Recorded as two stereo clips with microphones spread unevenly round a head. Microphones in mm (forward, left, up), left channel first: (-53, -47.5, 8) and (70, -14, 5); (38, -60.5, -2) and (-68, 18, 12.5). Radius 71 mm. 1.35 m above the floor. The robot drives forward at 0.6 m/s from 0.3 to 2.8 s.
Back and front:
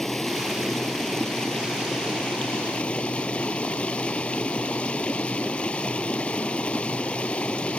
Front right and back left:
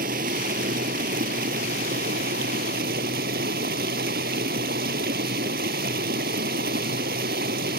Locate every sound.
0.0 s running water: 105° left; by 7.8 s 110° left